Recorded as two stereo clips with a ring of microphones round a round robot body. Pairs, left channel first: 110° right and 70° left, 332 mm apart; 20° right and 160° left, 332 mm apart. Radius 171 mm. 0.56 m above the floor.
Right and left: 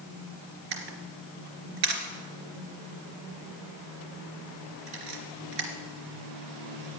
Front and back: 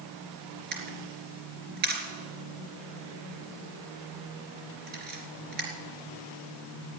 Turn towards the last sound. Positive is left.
turn(degrees=95)